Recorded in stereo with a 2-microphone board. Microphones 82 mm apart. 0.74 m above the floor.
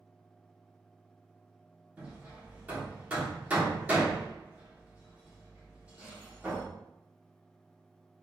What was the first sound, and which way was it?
Hammering, 20° right (ahead or behind).